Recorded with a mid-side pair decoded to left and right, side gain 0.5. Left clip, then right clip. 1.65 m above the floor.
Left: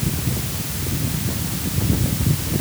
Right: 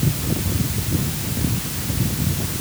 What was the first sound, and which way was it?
Only background noise.